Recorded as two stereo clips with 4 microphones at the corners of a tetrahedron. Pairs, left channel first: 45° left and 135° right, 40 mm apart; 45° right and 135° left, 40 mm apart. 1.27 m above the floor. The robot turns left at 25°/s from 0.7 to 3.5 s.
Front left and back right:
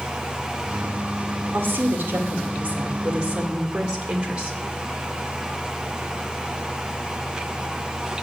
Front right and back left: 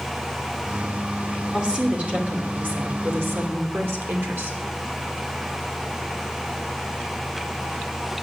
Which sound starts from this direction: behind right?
A woman speaking, at 1.5 s.